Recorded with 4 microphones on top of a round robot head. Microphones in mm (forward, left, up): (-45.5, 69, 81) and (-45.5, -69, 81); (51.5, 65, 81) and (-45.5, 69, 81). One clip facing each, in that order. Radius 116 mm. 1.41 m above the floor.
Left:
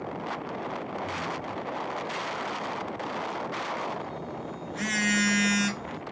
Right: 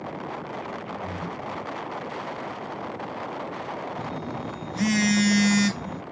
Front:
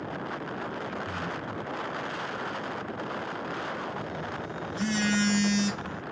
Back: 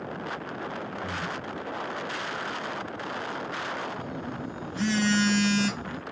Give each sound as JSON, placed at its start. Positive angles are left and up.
{"t": 1.0, "sound": "breathing", "azimuth_deg": -140, "distance_m": 1.3}
{"t": 4.0, "sound": "a phone buzzing", "azimuth_deg": -145, "distance_m": 0.7}